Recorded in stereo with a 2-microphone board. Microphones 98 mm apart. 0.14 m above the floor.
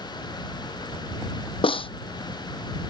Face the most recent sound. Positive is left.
turn(degrees=65)  # may be behind; listen again after turning